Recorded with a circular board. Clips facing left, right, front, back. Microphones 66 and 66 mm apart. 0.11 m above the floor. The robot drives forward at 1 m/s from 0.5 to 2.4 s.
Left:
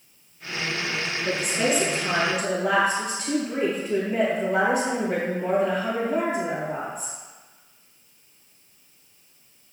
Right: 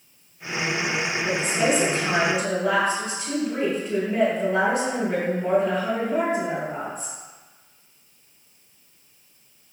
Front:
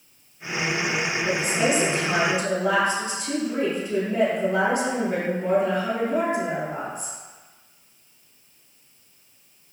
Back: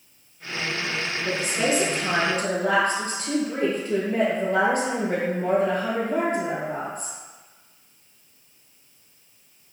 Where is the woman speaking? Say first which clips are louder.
Right 1 dB, front 1 dB; 155° left, 1.2 m; by 7.2 s 175° left, 1.9 m.